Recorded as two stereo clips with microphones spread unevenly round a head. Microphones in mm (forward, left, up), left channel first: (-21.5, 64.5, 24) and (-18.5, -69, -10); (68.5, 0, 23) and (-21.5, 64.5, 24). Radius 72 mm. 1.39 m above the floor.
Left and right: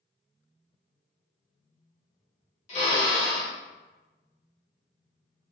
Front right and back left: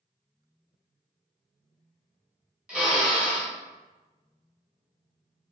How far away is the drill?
About 1.2 m.